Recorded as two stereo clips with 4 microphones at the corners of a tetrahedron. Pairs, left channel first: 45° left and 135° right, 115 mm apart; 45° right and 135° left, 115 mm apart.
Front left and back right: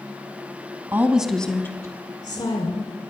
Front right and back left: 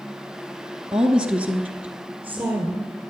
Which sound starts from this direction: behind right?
A woman speaking, at 0.9 s.